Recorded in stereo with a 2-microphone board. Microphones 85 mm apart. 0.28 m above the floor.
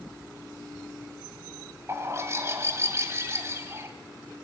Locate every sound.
1.9 s a bird: 35° right (ahead or behind), 1.9 m